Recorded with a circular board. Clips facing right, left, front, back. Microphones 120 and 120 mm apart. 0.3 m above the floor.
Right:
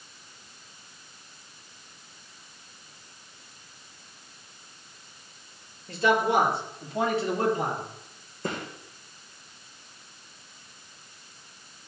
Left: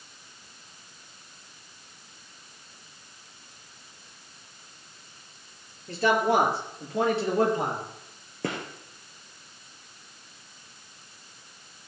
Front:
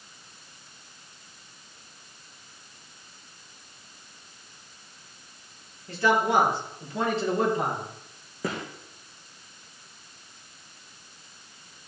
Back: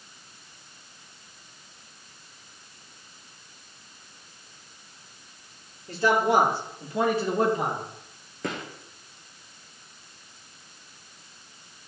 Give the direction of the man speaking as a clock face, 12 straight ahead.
8 o'clock.